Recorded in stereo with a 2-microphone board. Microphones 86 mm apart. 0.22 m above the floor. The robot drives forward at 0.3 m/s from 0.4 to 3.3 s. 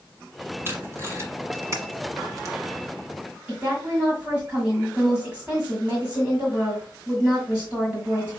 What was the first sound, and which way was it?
Tape being pulled, 30° right (ahead or behind).